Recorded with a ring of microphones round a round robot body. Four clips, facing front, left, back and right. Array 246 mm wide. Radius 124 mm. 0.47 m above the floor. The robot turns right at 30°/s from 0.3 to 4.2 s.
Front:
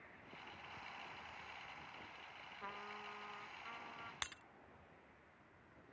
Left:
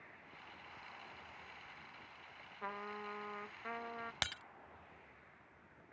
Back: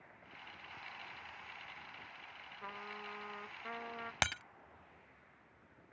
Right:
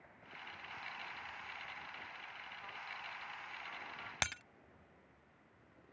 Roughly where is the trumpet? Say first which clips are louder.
Left 8 dB, back 3 dB; left.